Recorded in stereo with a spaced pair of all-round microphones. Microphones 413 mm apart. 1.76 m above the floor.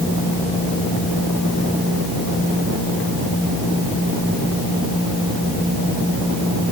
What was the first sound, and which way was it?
Only background noise.